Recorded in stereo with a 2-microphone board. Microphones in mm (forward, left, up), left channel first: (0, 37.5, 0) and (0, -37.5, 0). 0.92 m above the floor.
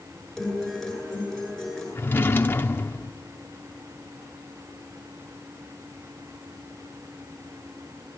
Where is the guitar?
Centre (ahead or behind), 9.5 m.